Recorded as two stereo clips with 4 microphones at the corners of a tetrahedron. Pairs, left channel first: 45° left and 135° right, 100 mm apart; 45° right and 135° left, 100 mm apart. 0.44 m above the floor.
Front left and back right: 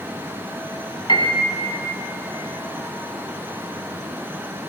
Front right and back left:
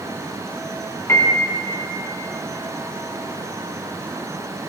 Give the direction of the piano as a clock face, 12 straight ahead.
12 o'clock.